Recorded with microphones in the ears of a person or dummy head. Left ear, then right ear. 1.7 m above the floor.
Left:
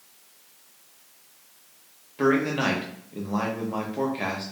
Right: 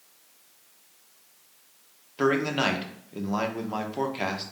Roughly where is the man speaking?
Right.